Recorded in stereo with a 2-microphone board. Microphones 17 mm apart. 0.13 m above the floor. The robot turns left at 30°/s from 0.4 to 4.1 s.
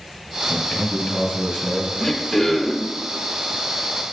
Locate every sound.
0.5 s a man speaking: 70° left, 2.5 m; by 1.9 s 25° left, 2.5 m
2.0 s throat clearing: 15° left (ahead or behind), 0.8 m; by 2.9 s 20° left (ahead or behind), 0.8 m